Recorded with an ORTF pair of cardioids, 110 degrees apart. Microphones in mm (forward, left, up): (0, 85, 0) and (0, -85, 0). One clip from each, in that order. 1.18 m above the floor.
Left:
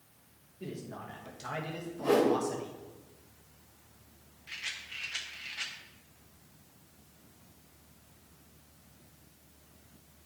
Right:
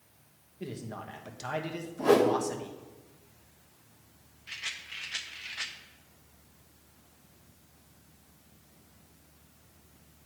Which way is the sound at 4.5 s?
15° right.